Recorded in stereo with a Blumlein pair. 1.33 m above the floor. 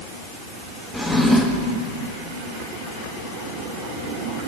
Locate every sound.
0.9 s a drawer: straight ahead, 1.3 m